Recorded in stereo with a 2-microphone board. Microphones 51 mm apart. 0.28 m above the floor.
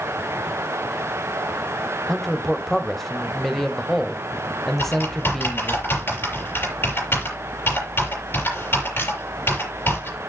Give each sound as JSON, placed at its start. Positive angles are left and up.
{"t": 2.1, "sound": "a man speaking", "side_deg": 5, "distance_m": 1.0}
{"t": 4.8, "sound": "typing on a keyboard", "side_deg": 50, "distance_m": 7.0}